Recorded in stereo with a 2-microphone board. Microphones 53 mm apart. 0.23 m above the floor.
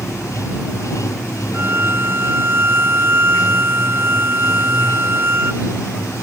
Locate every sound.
0.0 s running water: 75° left (ahead or behind)
1.5 s a violin: 50° right (ahead or behind)